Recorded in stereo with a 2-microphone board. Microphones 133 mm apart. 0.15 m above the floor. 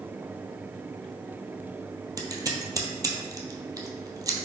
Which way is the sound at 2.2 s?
25° right (ahead or behind).